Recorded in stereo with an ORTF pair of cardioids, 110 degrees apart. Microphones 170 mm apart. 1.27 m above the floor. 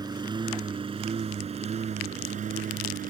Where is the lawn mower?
25° right; by 3.1 s 55° right.